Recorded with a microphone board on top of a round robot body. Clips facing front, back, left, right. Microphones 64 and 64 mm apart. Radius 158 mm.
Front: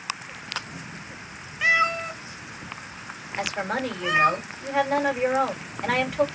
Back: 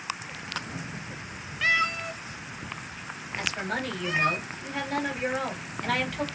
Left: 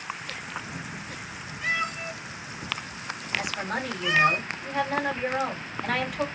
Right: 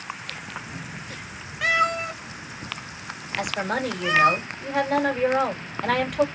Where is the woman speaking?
65° right, 3 m.